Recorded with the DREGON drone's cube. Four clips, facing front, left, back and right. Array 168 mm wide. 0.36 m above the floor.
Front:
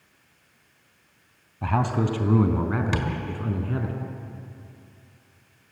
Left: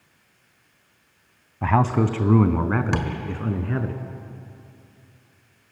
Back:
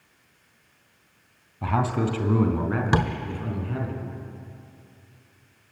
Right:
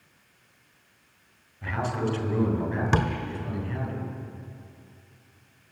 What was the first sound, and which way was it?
A man speaking, 90° left.